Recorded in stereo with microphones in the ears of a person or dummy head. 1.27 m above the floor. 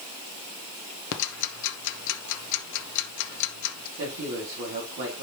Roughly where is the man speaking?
Right.